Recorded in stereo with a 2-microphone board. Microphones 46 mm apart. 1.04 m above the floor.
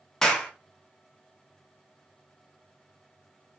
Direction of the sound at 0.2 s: 10° left (ahead or behind).